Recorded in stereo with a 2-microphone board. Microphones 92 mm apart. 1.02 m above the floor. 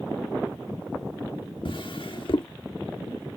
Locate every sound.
1.6 s a drawer: 65° left (ahead or behind)